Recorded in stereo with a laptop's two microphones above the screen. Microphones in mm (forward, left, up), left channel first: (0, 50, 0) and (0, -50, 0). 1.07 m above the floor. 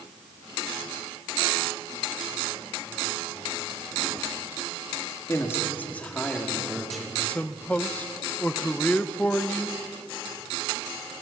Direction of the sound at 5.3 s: 30° left (ahead or behind).